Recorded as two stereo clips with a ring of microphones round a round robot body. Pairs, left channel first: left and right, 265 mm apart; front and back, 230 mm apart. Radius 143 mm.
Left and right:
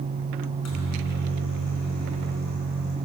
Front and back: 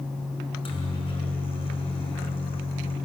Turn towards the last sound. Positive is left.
turn(degrees=65)